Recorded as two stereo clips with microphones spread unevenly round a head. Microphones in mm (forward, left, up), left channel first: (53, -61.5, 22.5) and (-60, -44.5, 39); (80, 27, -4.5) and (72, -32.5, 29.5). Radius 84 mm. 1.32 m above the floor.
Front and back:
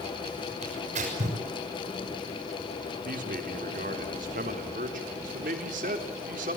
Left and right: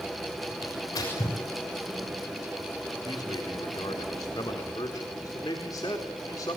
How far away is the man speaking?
About 3.5 m.